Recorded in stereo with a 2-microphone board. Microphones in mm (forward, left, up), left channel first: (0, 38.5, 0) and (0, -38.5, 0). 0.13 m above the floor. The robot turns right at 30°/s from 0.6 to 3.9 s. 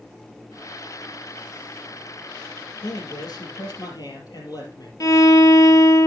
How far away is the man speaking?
About 3.5 m.